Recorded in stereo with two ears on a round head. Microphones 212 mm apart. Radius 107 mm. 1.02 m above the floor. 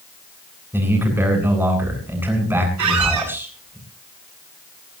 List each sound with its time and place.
0.7 s a man speaking: 10° right (ahead or behind), 8.5 m
2.8 s a squeak: 80° right, 8 m